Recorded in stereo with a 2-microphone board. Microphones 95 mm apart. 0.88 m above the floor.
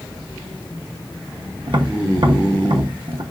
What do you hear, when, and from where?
1.7 s tapping: 55° right (ahead or behind), 0.7 m